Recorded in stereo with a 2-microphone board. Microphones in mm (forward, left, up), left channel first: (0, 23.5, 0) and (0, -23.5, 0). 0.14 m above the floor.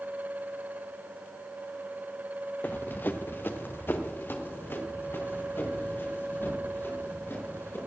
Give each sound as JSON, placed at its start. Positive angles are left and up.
{"t": 2.6, "sound": "running footsteps", "side_deg": 40, "distance_m": 0.6}